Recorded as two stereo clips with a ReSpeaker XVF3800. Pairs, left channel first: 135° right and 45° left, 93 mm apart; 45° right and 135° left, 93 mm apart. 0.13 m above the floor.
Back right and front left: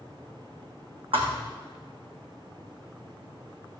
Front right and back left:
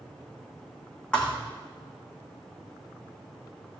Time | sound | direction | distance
1.1 | a thud | 35° left | 2.5 m